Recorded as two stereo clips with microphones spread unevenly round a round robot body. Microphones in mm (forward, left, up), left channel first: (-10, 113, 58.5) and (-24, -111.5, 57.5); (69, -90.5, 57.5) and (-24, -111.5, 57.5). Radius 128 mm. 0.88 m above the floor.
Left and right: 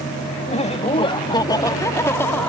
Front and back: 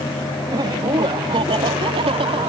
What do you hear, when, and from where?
0.5 s laughter: 145° left; by 2.5 s 170° left